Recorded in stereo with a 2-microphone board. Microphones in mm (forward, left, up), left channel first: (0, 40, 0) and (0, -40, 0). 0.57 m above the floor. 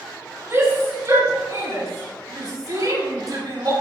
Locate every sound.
0.5 s a shout: 35° right (ahead or behind), 5 m; by 3.7 s 55° right (ahead or behind), 5.5 m